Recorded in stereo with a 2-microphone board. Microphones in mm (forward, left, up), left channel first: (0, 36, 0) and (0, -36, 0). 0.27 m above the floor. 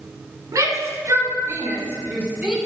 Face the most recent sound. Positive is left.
turn(degrees=-15)  # may be behind; listen again after turning